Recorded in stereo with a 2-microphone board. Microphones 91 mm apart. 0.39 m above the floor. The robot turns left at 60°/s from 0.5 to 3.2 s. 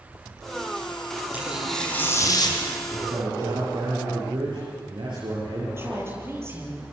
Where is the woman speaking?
25° right (ahead or behind), 7.5 m.